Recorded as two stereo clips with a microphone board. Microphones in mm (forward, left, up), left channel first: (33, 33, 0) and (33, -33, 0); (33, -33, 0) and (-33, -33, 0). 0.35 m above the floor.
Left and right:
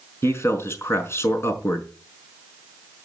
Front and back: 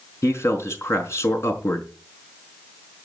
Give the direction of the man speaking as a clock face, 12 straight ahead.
11 o'clock.